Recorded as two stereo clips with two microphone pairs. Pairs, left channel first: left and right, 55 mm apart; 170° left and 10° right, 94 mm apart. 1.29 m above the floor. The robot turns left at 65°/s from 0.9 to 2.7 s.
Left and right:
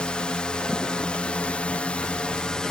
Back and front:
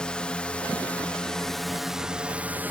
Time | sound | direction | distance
0.0 | a drone | 110° left | ?